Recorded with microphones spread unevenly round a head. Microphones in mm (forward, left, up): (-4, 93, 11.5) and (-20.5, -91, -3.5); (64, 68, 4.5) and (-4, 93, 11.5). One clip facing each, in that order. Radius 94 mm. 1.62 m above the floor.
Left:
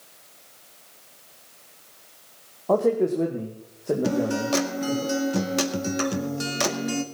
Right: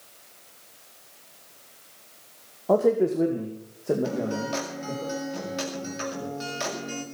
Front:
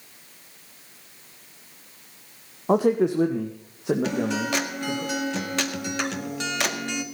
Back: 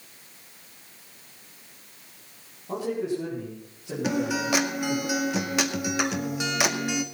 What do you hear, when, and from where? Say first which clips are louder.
2.7 s a man speaking: even, front 9 dB; 10° right, 1.1 m; by 5.0 s 5° right, 2.5 m
4.0 s a guitar: left 4 dB, even; 85° left, 1.9 m